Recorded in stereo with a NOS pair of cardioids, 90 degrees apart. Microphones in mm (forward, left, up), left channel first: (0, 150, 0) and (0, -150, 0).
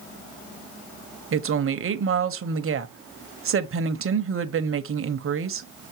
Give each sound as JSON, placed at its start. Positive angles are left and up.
{"t": 1.3, "sound": "a woman speaking", "azimuth_deg": -45, "distance_m": 1.2}